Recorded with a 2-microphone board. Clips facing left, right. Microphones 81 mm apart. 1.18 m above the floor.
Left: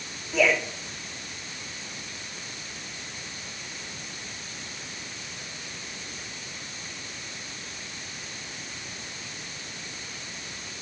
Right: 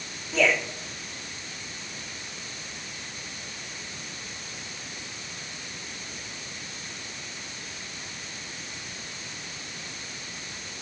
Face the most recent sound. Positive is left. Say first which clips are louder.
# left 1 dB
turn(degrees=5)  # may be behind; listen again after turning